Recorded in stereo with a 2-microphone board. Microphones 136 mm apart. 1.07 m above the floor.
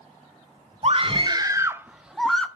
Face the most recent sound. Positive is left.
turn(degrees=5)  # may be behind; listen again after turning